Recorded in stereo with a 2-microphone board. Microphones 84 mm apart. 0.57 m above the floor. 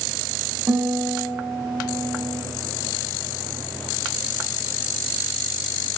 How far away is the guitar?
About 0.6 m.